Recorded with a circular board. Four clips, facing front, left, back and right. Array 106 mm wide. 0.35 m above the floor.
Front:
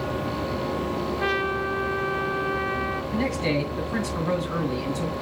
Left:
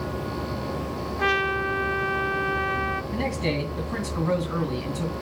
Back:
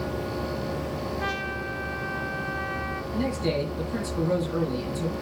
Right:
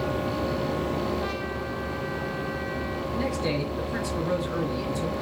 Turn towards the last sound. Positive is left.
turn(degrees=55)